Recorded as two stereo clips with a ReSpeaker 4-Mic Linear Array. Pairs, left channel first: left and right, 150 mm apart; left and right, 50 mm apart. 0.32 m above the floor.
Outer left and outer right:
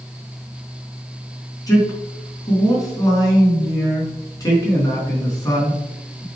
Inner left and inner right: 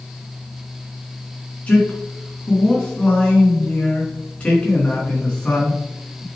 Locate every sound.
1.7 s a man speaking: 25° left (ahead or behind), 3.5 m